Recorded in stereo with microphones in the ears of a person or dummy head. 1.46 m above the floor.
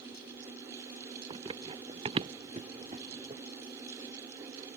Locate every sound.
1.3 s running footsteps: 30° right (ahead or behind)